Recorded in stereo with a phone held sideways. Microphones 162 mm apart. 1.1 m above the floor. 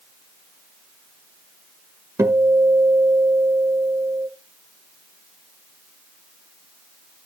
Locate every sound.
2.2 s a guitar: 20° right (ahead or behind), 1.2 m